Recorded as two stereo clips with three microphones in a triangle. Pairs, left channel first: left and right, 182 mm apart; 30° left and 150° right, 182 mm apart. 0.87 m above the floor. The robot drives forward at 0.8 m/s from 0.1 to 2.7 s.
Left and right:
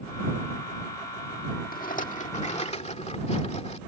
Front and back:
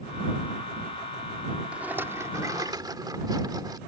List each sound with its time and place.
1.7 s a rattle: 125° left; by 3.8 s 145° left